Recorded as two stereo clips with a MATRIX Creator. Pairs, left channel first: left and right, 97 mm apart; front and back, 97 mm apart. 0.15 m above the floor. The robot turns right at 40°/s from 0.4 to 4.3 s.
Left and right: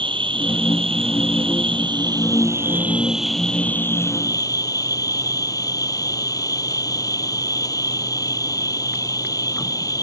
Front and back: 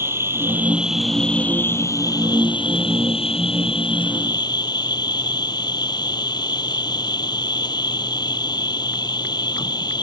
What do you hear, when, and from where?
0.0 s an insect: 115° right; by 10.0 s 40° left